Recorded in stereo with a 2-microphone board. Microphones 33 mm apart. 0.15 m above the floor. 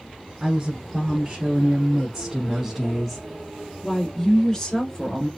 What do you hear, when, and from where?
0.4 s a woman speaking: 25° right (ahead or behind), 1.7 m; by 5.3 s 20° left (ahead or behind), 1.8 m